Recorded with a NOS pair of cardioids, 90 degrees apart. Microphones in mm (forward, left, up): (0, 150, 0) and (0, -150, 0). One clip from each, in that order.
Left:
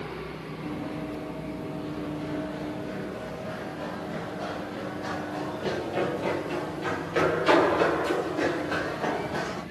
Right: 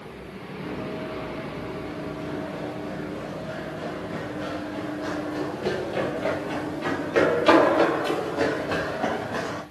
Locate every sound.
0.6 s running footsteps: 10° right, 5 m; by 9.6 s 35° right, 10 m